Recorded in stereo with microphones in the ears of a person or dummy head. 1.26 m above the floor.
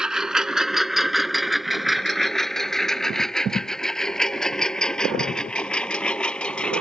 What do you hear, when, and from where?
0.0 s a lawn mower: centre (ahead or behind); by 6.8 s 10° left (ahead or behind)